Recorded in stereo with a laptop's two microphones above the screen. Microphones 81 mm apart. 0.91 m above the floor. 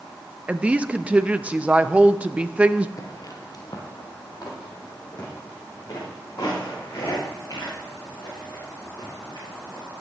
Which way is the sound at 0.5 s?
15° right (ahead or behind).